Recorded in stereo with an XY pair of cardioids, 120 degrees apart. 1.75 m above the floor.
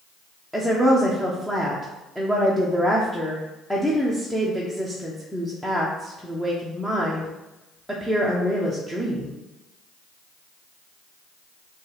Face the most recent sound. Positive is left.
turn(degrees=0)